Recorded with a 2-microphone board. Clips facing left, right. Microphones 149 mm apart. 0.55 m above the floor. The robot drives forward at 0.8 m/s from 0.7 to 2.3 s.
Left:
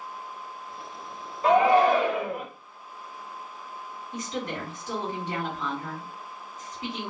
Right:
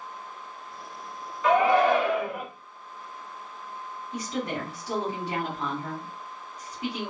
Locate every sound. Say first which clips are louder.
1.4 s a shout: left 1 dB; 35° left (ahead or behind), 1.3 m
4.1 s a woman speaking: right 2 dB; 15° right (ahead or behind), 2 m